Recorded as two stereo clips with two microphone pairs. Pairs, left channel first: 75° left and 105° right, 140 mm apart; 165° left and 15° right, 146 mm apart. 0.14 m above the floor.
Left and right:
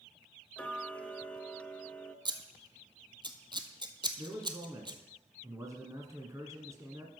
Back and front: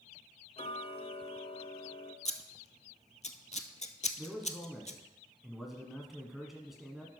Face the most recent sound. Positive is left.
turn(degrees=-100)